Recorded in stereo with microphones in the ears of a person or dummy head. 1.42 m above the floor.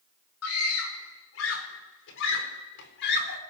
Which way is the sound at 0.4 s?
85° left.